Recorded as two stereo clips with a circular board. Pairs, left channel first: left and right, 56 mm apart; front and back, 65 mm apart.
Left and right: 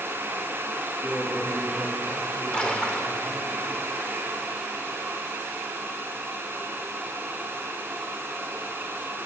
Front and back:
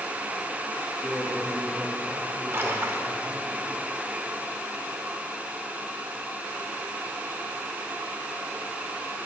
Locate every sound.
1.0 s a man speaking: 115° left, 5 m
2.5 s a splash: 155° left, 1.1 m